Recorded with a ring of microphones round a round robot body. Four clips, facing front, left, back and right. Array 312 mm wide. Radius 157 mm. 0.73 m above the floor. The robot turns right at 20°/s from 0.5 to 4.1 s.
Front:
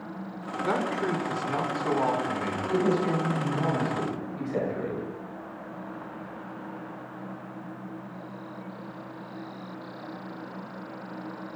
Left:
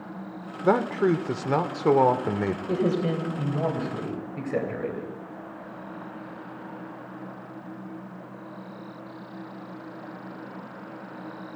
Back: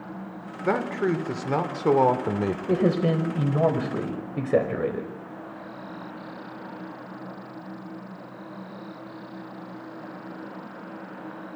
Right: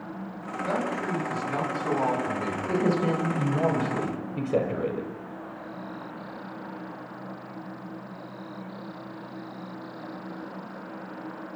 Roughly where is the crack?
I don't hear a crack.